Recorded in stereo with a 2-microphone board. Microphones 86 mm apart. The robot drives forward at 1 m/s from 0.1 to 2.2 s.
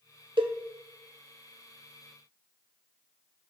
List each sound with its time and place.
0.4 s a cowbell: 85° right, 0.6 m; by 0.6 s 75° right (ahead or behind), 0.6 m